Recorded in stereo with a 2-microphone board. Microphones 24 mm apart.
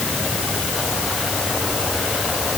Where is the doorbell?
No doorbell in this recording.